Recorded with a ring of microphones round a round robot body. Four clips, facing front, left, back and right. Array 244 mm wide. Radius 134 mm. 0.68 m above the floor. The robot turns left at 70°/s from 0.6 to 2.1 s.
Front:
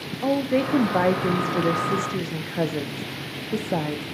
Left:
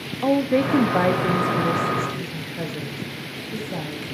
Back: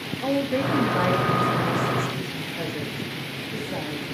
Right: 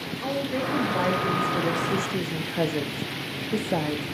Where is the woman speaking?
70° left, 0.9 m; by 4.0 s 35° right, 0.9 m.